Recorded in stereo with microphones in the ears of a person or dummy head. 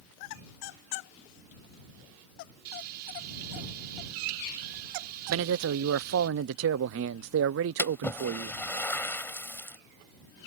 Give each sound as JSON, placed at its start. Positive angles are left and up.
{"t": 2.6, "sound": "frying", "side_deg": -55}
{"t": 5.3, "sound": "a man speaking", "side_deg": -65}
{"t": 7.8, "sound": "a splash", "side_deg": 15}